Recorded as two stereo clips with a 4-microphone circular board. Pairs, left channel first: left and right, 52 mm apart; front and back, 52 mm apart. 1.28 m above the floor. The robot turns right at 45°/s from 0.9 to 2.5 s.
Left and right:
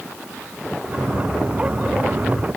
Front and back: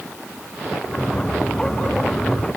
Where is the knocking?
No knocking in this recording.